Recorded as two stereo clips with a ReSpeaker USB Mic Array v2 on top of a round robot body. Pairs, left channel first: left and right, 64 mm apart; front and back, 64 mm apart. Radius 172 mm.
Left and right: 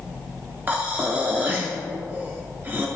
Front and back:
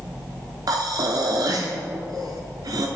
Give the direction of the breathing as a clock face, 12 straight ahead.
5 o'clock.